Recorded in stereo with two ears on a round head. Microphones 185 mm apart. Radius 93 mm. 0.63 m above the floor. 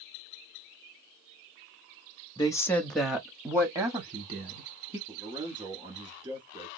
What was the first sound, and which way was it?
A woman speaking, 20° left (ahead or behind).